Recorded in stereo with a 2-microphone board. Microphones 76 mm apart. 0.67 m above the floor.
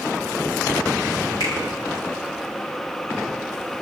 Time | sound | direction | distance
1.4 | a finger snap | 55° left (ahead or behind) | 7.5 m